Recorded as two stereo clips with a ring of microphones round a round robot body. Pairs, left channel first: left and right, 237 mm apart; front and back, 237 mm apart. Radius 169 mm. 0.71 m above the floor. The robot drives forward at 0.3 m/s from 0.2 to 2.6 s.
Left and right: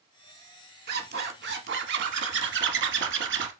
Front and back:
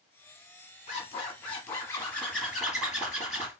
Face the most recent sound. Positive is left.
turn(degrees=-90)